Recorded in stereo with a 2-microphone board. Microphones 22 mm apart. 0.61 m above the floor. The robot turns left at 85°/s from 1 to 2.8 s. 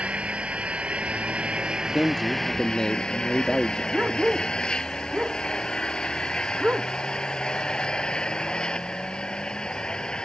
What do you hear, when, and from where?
0.0 s an engine running: 75° right; by 10.2 s 135° left
1.9 s a man speaking: 15° left (ahead or behind); by 3.8 s 25° left (ahead or behind)
3.9 s a dog barking: 75° right (ahead or behind)